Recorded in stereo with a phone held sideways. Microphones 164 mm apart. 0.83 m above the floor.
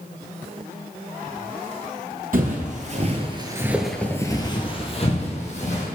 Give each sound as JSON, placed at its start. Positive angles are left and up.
{"t": 2.3, "sound": "footsteps", "side_deg": -60, "distance_m": 1.5}